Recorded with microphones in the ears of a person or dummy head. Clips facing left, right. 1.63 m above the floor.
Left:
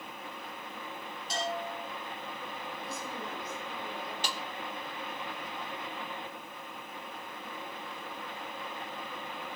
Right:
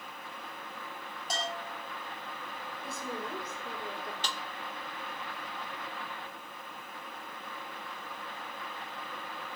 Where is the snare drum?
15° left (ahead or behind), 1.1 m.